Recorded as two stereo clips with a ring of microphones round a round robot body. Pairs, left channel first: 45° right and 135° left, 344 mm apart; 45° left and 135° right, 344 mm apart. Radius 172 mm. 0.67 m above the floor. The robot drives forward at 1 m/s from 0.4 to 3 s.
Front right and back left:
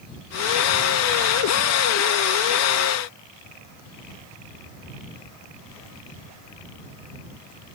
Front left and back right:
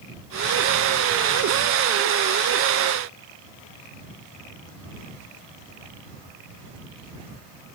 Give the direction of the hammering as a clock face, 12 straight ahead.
No hammering in this recording.